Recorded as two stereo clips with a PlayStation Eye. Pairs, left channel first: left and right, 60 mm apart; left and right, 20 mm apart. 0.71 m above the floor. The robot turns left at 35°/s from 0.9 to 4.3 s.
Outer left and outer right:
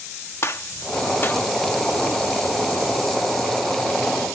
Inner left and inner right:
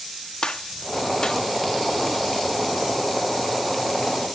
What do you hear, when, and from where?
0.4 s a gunshot: 45° left (ahead or behind), 1.1 m; by 1.4 s 35° left (ahead or behind), 1.1 m